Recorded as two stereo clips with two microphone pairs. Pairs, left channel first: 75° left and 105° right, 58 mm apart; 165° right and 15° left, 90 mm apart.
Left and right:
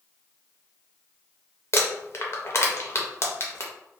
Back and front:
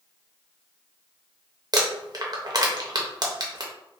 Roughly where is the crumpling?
Ahead left.